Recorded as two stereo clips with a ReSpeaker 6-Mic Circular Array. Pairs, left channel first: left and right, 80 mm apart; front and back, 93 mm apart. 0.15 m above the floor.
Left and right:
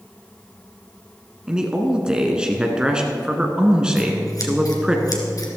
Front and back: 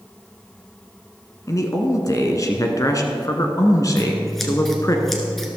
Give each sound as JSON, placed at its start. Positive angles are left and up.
{"t": 1.5, "sound": "a man speaking", "azimuth_deg": -15, "distance_m": 1.3}
{"t": 4.0, "sound": "scissors", "azimuth_deg": 85, "distance_m": 1.9}